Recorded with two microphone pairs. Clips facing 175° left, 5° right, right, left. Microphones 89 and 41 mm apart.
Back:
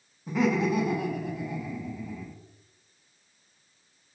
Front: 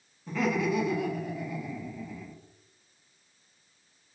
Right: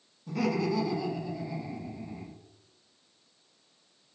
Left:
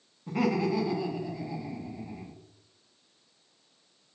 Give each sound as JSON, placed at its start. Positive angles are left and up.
{"t": 0.3, "sound": "laughter", "azimuth_deg": 95, "distance_m": 0.7}